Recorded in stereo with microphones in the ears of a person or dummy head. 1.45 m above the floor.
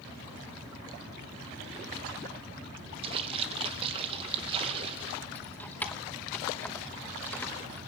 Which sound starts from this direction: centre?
Keys jangling, at 5.3 s.